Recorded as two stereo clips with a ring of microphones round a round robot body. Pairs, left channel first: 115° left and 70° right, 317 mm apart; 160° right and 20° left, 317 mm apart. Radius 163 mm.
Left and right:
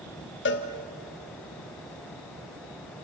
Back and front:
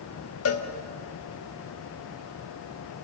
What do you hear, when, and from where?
0.5 s a cowbell: 165° left, 1.8 m